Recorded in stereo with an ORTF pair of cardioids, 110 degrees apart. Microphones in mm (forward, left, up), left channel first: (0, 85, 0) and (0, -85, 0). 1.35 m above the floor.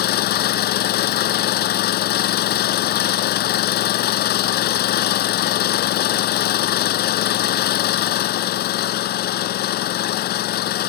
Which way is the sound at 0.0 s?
70° left.